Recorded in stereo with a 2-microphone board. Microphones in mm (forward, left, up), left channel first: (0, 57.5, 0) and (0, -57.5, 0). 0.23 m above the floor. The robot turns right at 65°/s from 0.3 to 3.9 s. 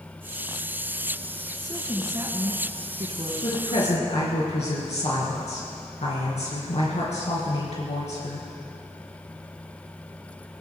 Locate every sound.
1.6 s a woman speaking: 175° left, 3.5 m; by 3.3 s 75° right, 3.5 m
3.4 s a woman speaking: 55° left, 3.5 m; by 8.5 s 85° left, 3.5 m